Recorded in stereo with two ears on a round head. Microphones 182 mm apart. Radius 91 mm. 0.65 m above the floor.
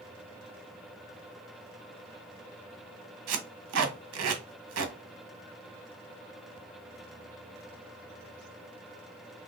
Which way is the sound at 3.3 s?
80° right.